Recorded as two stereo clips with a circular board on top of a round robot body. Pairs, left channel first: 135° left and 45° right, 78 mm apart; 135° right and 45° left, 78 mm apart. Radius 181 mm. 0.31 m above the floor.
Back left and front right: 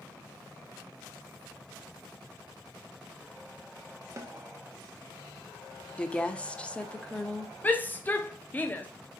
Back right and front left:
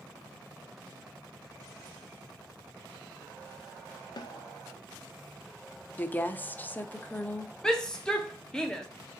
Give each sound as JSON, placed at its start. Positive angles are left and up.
{"t": 4.2, "sound": "a snare drum", "azimuth_deg": -100, "distance_m": 0.5}
{"t": 6.0, "sound": "a woman speaking", "azimuth_deg": -170, "distance_m": 0.9}
{"t": 7.6, "sound": "a shout", "azimuth_deg": 155, "distance_m": 1.0}